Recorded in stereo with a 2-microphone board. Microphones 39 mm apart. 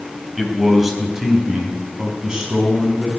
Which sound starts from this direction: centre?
A man speaking, at 0.4 s.